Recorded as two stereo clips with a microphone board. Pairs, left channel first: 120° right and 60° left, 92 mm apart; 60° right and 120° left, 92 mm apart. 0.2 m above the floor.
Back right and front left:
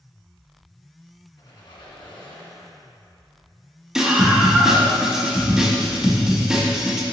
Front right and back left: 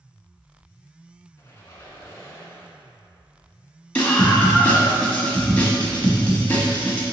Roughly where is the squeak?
Right.